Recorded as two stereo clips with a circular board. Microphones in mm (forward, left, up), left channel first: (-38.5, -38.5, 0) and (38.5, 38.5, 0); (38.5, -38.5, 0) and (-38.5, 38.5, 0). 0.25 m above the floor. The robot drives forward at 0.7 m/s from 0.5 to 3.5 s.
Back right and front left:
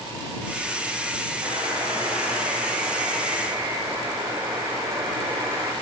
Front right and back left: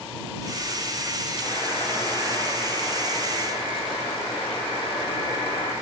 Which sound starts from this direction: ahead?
A buzzer, at 1.4 s.